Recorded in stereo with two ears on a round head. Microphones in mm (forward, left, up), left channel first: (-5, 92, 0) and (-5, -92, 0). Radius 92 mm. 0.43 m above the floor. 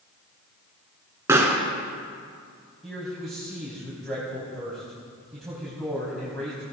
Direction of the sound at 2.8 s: Centre (ahead or behind).